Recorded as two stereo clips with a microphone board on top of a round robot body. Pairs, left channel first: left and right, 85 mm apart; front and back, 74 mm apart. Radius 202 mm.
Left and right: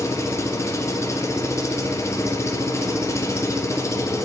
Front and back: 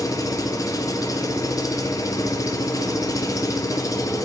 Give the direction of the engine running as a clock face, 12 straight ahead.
11 o'clock.